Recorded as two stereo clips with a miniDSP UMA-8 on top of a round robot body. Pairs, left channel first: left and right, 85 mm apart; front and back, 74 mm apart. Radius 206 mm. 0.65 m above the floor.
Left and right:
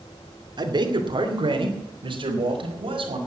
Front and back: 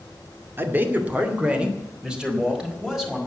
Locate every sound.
0.6 s a man speaking: 120° right, 2.5 m; by 3.2 s 95° right, 5 m